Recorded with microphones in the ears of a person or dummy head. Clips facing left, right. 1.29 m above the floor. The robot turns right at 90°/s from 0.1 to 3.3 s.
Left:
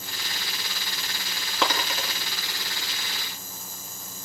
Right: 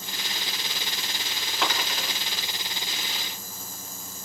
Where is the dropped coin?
65° left (ahead or behind), 3.5 m; by 2.1 s 25° left (ahead or behind), 3.5 m.